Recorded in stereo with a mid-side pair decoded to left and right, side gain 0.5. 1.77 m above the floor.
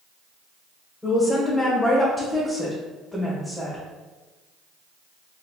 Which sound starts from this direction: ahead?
A woman speaking, at 1.0 s.